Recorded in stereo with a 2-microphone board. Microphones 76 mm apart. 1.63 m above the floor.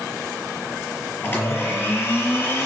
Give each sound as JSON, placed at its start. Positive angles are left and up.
{"t": 1.2, "sound": "a blender", "side_deg": 30, "distance_m": 6.5}